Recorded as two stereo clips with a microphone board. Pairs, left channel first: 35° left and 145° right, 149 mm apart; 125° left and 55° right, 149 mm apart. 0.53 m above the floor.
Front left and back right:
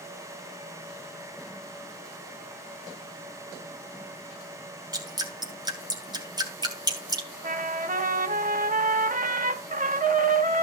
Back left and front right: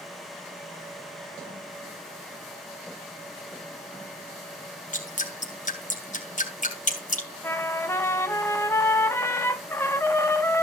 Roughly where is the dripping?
Behind left.